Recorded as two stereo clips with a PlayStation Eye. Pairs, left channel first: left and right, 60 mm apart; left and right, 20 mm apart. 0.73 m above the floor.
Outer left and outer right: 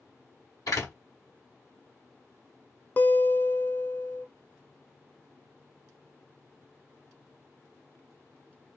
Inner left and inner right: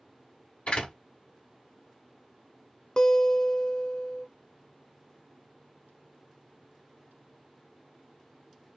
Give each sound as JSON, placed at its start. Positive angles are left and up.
{"t": 0.7, "sound": "a door slam", "side_deg": 85, "distance_m": 1.9}
{"t": 3.0, "sound": "a guitar", "side_deg": 40, "distance_m": 0.6}